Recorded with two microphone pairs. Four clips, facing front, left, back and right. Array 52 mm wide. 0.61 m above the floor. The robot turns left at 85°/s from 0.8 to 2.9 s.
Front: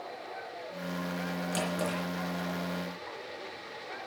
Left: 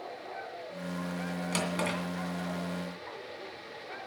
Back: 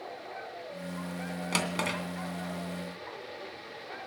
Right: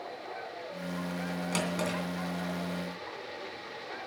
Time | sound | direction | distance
1.5 | a drawer | 175° right | 2.5 m